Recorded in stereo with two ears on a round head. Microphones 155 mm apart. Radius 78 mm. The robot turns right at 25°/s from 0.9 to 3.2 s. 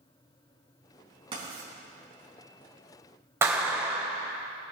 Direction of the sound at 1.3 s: 30° right (ahead or behind).